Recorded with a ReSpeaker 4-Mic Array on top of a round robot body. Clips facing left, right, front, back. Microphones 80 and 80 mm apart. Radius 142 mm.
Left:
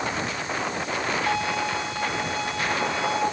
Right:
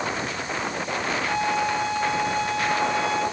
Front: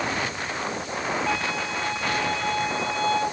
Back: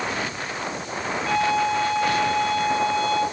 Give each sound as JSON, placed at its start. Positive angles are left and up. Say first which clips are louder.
{"t": 1.3, "sound": "a violin", "louder": "right 2 dB, back 6 dB", "azimuth_deg": 80, "distance_m": 8.0}